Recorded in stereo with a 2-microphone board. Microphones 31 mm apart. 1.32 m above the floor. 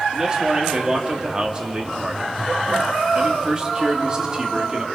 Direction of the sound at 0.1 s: 25° right (ahead or behind).